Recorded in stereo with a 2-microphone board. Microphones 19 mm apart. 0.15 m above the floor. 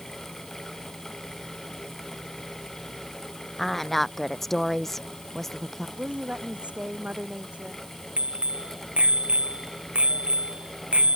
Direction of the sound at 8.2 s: 70° right (ahead or behind).